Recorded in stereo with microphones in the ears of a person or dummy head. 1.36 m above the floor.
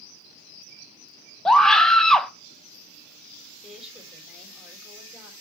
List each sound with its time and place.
1.4 s a scream: centre (ahead or behind), 0.9 m
3.6 s a woman speaking: 5° right (ahead or behind), 4 m